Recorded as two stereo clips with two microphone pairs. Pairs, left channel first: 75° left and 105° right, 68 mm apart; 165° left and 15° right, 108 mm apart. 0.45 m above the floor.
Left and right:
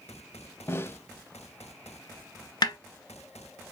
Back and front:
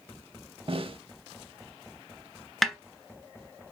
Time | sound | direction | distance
0.7 | a snare drum | 20° left | 0.6 m
2.6 | a snare drum | 75° left | 1.1 m